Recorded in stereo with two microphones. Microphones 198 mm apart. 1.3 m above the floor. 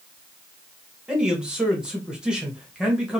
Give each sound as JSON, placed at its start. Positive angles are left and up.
{"t": 1.1, "sound": "a man speaking", "side_deg": -5, "distance_m": 1.1}